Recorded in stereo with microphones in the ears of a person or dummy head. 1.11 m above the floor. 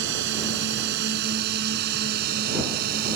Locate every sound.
0.0 s a drone: 75° right (ahead or behind); by 3.2 s 60° right (ahead or behind)